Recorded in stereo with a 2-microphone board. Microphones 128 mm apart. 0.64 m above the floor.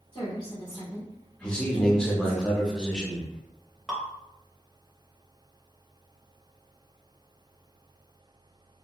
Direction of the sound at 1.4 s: 5° left (ahead or behind).